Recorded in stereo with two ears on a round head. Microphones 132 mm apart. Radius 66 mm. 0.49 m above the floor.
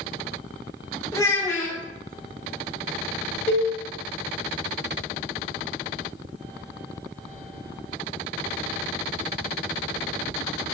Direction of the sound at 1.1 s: 20° left (ahead or behind).